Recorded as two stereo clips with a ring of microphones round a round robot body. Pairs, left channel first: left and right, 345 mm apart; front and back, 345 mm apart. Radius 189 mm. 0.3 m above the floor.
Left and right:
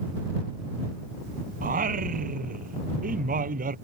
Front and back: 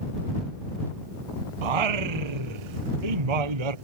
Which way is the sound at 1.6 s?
160° right.